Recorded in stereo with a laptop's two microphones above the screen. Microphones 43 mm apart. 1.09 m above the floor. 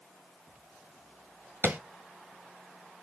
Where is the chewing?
I don't hear chewing.